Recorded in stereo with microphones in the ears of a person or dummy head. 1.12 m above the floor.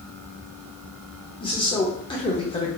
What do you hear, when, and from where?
1.4 s a man speaking: 20° left (ahead or behind), 0.7 m